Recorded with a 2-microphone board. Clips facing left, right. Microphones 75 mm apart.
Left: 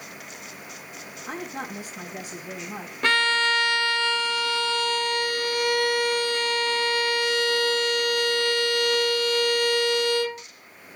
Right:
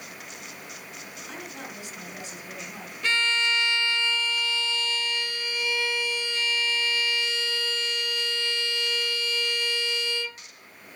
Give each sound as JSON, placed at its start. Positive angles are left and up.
{"t": 1.3, "sound": "a woman speaking", "side_deg": 45, "distance_m": 4.5}
{"t": 3.0, "sound": "a violin", "side_deg": 55, "distance_m": 0.6}